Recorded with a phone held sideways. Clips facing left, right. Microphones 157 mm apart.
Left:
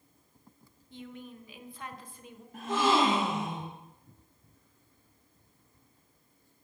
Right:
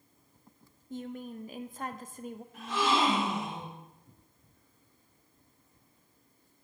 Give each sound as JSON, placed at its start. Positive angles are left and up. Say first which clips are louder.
{"t": 0.9, "sound": "a woman speaking", "louder": "right 6 dB", "side_deg": -45, "distance_m": 0.6}
{"t": 2.5, "sound": "a gasp", "louder": "left 3 dB", "side_deg": 50, "distance_m": 2.0}